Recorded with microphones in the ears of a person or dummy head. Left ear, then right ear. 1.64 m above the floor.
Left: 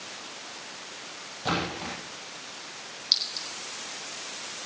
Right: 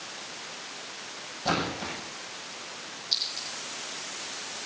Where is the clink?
80° left, 7 m.